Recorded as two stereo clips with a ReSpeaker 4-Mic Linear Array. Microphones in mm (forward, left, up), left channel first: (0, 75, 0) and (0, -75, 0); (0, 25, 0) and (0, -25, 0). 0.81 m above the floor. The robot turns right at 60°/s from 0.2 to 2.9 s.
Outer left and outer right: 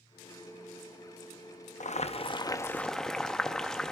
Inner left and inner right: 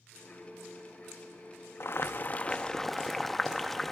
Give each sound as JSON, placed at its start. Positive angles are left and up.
{"t": 1.8, "sound": "boiling", "azimuth_deg": 110, "distance_m": 0.9}